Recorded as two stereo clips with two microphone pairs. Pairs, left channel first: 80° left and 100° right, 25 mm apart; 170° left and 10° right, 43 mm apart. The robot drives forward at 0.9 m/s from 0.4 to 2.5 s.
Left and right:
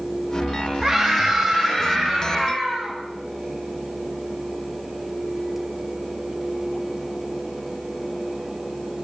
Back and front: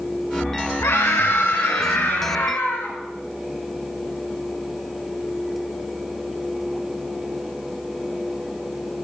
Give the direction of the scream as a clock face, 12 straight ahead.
6 o'clock.